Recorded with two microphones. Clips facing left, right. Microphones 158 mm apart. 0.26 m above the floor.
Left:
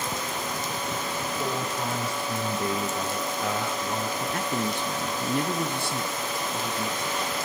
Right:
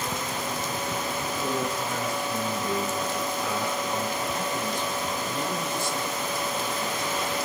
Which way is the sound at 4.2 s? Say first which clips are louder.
Left 1 dB; 65° left (ahead or behind).